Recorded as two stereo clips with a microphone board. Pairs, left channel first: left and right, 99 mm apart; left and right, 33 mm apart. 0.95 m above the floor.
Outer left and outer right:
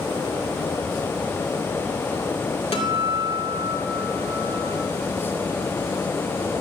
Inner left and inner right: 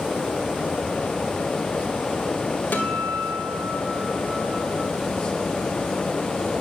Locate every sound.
2.7 s a guitar: 75° left (ahead or behind), 2 m